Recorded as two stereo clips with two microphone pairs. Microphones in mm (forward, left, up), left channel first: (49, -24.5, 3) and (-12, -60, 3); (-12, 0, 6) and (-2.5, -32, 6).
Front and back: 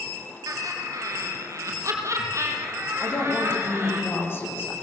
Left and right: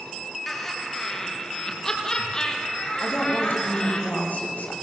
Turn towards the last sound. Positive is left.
turn(degrees=85)